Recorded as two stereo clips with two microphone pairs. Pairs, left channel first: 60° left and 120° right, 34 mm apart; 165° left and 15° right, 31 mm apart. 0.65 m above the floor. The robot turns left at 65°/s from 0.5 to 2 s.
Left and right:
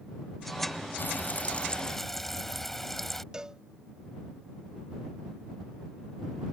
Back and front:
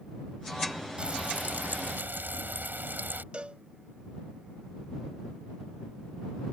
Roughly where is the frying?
Ahead left.